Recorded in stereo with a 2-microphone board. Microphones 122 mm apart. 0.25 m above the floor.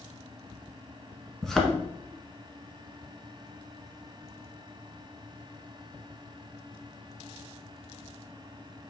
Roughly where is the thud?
Centre.